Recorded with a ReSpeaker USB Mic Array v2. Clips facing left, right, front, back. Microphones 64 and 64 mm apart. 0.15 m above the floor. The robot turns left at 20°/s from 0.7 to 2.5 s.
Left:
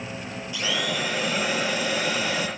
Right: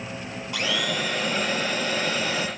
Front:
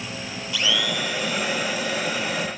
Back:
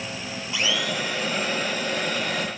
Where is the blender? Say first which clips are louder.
Right 1 dB, front 1 dB; 115° right, 1.1 m; by 2.5 s 150° right, 1.1 m.